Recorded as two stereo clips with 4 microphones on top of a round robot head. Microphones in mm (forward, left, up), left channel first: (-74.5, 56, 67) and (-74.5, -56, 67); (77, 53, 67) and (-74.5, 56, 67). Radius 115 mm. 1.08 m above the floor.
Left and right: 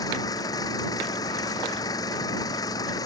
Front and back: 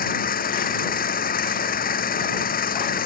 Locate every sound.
0.0 s an engine running: 25° left